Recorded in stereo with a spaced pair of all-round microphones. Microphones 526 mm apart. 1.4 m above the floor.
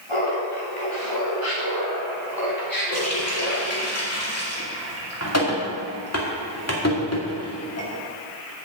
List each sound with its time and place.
0.1 s laughter: 70° left (ahead or behind), 4 m; by 3.9 s 25° left (ahead or behind), 4 m
2.9 s a running tap: 30° left (ahead or behind), 2 m